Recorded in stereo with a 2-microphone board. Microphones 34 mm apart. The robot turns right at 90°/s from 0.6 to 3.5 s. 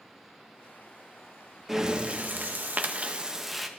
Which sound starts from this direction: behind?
Breathing, at 1.7 s.